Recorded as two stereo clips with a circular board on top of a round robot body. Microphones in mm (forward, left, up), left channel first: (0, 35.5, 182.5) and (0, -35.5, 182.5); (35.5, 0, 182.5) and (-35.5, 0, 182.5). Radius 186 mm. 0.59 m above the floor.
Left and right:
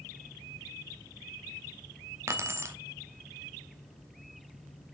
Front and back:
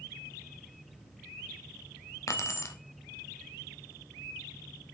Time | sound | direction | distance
2.3 | keys jangling | 40° right | 0.9 m